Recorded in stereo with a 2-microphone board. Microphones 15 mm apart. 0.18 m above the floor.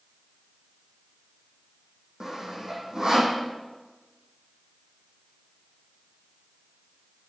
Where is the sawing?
35° right (ahead or behind), 3.5 m.